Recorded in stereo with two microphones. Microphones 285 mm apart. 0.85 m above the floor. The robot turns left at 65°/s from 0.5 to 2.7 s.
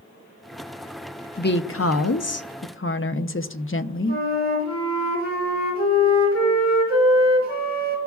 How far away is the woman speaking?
About 0.6 m.